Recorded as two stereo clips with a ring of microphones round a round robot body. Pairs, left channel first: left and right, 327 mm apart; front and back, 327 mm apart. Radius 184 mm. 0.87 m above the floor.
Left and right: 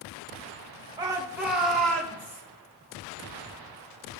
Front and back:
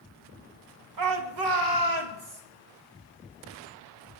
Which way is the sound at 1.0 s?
170° right.